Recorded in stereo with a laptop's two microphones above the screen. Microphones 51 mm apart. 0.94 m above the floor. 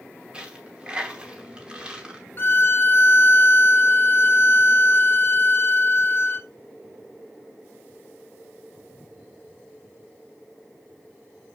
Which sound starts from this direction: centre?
A dropped coin, at 0.3 s.